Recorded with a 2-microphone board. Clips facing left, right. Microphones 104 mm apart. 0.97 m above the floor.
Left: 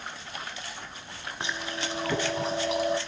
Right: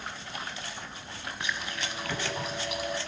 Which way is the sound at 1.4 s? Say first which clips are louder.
Left 3 dB; 30° left (ahead or behind).